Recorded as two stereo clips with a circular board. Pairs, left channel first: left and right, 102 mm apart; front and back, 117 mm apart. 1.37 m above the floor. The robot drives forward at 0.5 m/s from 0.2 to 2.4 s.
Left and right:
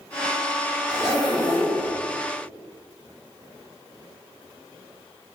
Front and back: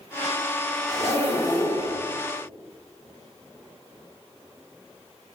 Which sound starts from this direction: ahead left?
A zipper, at 0.9 s.